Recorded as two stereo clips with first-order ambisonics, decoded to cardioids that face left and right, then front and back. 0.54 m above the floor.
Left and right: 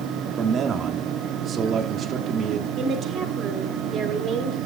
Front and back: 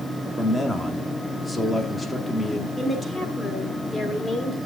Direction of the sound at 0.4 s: 70° right.